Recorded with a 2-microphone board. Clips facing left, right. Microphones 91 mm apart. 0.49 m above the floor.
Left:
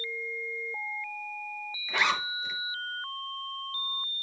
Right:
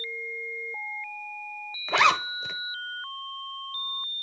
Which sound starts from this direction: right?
A zipper, at 1.9 s.